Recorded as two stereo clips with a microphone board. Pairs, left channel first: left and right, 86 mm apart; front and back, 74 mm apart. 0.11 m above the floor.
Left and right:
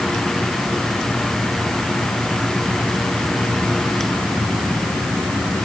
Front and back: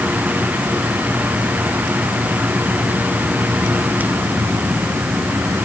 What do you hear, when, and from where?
Only background noise.